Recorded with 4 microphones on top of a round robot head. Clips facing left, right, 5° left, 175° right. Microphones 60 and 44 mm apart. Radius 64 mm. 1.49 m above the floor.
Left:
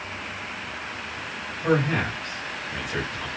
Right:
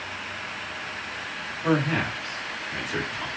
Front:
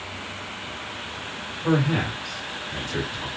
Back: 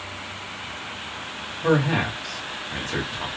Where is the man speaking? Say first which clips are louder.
Left 1 dB, back 2 dB; straight behind, 1.8 m.